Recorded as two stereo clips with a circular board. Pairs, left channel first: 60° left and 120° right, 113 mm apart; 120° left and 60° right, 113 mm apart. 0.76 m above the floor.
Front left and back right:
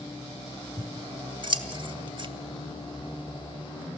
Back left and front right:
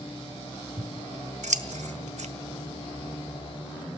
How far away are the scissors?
About 1.3 m.